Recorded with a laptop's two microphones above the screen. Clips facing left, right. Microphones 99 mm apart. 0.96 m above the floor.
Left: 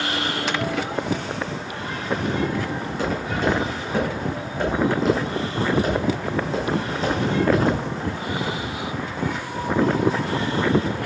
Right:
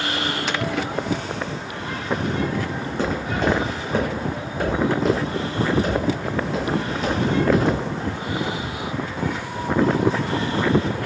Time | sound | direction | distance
2.8 | footsteps | 30° right (ahead or behind) | 3 m